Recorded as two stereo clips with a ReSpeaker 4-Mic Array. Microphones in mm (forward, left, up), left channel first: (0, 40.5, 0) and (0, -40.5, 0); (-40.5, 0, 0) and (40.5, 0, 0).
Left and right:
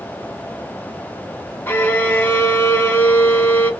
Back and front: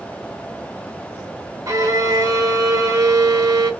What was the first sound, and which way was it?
A violin, 30° left.